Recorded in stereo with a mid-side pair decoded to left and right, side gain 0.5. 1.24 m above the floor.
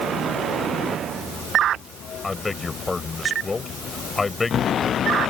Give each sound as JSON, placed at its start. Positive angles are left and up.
{"t": 2.2, "sound": "a man speaking", "azimuth_deg": 25}